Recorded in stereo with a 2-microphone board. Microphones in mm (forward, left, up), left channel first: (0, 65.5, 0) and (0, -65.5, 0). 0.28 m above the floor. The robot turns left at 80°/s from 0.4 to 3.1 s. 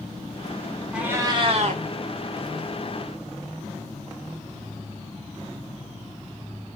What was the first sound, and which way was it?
A cat meowing, 5° right.